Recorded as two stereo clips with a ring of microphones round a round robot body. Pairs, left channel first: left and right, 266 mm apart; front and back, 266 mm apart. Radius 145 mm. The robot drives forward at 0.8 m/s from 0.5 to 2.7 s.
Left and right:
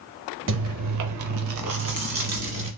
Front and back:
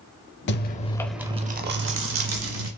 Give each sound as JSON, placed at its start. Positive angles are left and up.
{"t": 0.5, "sound": "chewing", "azimuth_deg": -50, "distance_m": 0.8}